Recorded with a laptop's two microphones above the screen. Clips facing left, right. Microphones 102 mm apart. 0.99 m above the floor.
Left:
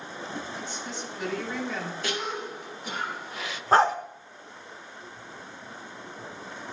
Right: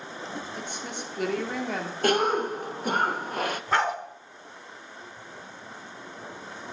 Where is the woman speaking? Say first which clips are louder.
Even; 55° right (ahead or behind), 3 m.